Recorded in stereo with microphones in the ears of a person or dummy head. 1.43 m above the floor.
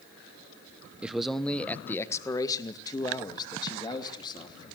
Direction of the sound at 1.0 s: 5° right (ahead or behind).